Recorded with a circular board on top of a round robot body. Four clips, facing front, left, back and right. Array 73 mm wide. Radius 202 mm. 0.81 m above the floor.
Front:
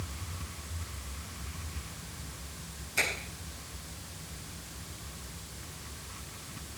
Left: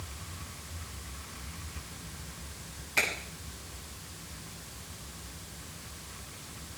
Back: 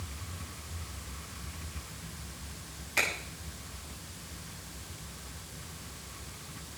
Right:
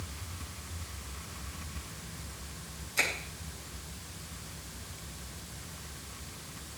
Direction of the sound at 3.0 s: 135° left.